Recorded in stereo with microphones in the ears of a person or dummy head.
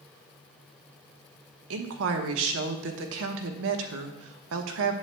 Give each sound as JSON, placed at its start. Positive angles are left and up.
{"t": 1.7, "sound": "a woman speaking", "side_deg": -70, "distance_m": 1.1}